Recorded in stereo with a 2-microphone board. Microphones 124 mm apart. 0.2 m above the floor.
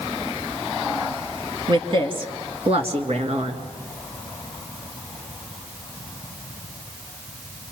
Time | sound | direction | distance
1.7 | a woman speaking | 40° right (ahead or behind) | 2 m